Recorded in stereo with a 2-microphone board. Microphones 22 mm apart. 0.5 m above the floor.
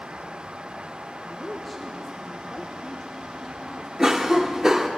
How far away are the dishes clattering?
I don't hear dishes clattering.